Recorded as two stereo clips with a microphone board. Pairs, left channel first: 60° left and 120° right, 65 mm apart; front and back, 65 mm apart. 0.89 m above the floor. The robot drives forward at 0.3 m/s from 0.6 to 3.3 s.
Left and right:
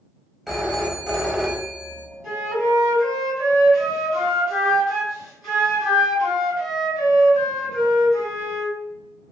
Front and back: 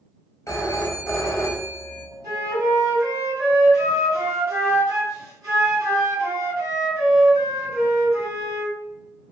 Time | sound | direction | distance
0.5 | a phone ringing | 30° right | 0.8 m
2.2 | a flute | 155° left | 1.7 m